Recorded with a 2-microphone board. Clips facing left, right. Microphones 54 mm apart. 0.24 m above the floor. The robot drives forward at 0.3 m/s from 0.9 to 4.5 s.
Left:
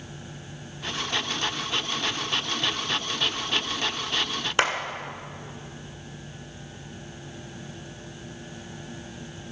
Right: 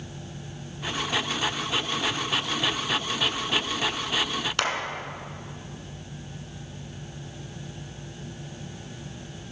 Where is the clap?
20° left (ahead or behind), 1.9 m.